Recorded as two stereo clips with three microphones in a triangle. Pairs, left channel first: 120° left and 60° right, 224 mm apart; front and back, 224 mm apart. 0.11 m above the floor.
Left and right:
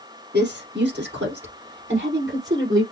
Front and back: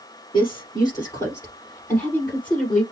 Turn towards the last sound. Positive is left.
turn(degrees=-85)